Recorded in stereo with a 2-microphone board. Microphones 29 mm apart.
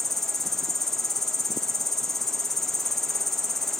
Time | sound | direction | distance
0.0 | an insect | 10° left (ahead or behind) | ?